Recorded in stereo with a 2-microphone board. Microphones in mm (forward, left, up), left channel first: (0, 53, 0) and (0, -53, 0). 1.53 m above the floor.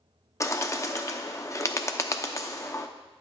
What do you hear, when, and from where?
0.4 s a bird: 30° left (ahead or behind), 0.7 m